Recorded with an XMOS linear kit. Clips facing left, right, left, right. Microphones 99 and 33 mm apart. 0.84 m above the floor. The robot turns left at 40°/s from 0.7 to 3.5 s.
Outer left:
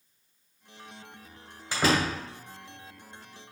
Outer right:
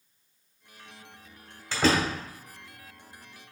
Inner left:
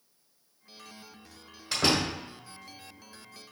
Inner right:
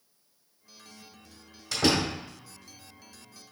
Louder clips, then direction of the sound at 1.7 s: Outer right 1 dB, inner right 1 dB; 15° left (ahead or behind).